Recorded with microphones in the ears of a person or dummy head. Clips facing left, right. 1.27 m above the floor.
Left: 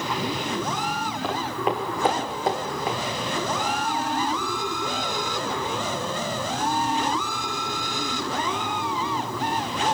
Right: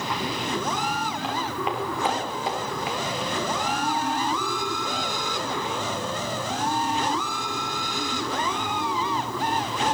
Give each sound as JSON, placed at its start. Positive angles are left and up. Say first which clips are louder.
{"t": 1.2, "sound": "footsteps", "louder": "left 5 dB", "side_deg": 45, "distance_m": 4.5}